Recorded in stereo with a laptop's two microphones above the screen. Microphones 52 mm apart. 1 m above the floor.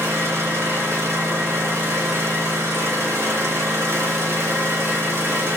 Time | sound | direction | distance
0.0 | an engine running | 60° right (ahead or behind) | 1.5 m